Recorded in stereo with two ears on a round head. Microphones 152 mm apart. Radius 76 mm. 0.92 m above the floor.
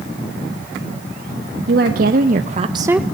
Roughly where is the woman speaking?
Right.